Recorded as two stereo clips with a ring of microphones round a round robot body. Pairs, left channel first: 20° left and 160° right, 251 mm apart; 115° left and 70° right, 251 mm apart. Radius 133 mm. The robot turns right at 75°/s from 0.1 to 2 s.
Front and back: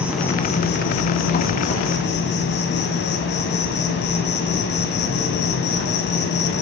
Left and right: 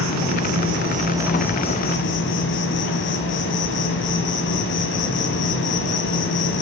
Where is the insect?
75° right, 2 m; by 6.6 s 70° left, 2 m.